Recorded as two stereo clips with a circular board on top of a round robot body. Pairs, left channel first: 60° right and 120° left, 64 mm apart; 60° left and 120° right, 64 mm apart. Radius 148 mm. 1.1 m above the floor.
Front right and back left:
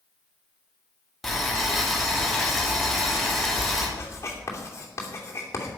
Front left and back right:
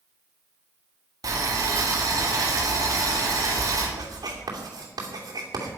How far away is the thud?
No thud in this recording.